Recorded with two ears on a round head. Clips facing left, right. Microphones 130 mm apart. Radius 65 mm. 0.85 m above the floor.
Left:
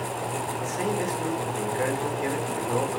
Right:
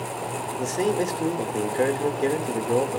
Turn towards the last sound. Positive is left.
turn(degrees=-45)  # may be behind; listen again after turning